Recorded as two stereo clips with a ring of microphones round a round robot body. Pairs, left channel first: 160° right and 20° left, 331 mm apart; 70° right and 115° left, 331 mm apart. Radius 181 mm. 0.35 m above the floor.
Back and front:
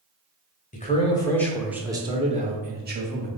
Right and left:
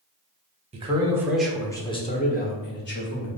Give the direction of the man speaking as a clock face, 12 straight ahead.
7 o'clock.